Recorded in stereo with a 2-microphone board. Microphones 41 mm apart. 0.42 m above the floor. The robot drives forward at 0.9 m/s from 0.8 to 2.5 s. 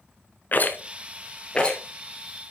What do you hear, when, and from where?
0.5 s a rattle: 45° left (ahead or behind), 0.9 m; by 1.8 s 25° left (ahead or behind), 1.7 m